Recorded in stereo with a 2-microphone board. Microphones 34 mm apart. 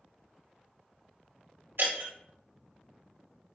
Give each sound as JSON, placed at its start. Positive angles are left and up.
{"t": 1.8, "sound": "breaking glass", "side_deg": -80, "distance_m": 2.0}